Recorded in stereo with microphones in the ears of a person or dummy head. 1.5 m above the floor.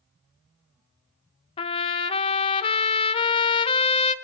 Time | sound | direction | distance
1.6 | a trumpet | 30° left (ahead or behind) | 0.8 m